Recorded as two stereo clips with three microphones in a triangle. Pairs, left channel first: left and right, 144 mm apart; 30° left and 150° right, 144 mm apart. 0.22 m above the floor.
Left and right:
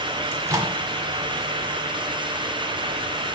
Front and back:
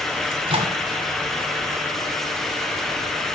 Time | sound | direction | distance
0.3 | a microwave | 145° right | 1.5 m